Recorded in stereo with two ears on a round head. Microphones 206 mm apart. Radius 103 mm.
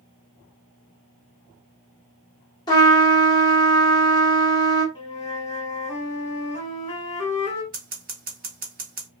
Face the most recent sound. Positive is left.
turn(degrees=-40)  # may be behind; listen again after turning